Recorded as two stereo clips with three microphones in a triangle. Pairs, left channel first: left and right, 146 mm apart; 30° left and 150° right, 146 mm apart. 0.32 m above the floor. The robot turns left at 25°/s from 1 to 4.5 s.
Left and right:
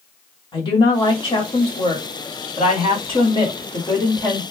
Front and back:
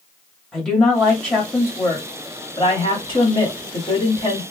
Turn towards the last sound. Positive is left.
turn(degrees=30)